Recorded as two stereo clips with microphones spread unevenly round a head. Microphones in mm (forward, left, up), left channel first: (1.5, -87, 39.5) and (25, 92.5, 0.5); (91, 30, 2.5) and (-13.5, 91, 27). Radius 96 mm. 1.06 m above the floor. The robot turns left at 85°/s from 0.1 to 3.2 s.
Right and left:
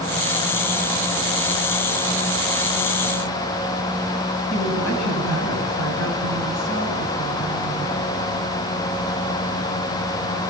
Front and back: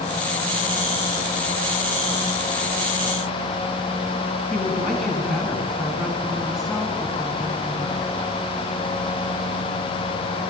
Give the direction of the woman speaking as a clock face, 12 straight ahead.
3 o'clock.